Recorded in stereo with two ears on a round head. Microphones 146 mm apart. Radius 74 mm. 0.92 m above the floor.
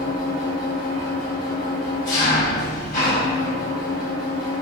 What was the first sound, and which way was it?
An engine running, 45° left (ahead or behind).